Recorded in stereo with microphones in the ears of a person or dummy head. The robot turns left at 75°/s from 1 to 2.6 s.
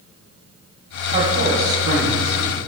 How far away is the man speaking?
About 2.5 m.